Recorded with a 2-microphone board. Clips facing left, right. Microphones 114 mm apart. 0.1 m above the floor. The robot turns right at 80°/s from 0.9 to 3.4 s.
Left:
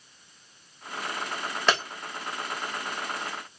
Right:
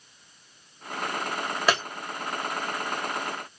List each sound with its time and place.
1.7 s breaking glass: 5° right (ahead or behind), 2.5 m; by 1.8 s 15° right (ahead or behind), 2.5 m